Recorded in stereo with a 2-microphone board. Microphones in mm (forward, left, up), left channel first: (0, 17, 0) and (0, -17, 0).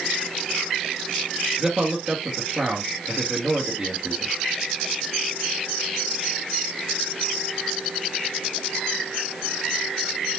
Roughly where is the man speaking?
Centre.